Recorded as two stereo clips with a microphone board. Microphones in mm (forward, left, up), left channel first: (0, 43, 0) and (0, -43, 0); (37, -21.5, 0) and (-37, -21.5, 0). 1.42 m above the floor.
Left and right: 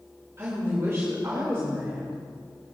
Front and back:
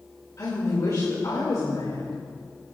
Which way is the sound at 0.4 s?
35° right.